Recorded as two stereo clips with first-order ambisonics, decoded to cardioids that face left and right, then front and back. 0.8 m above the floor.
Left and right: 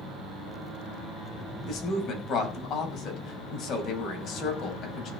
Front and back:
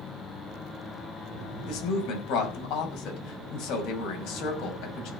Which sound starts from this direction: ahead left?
A woman speaking, at 1.7 s.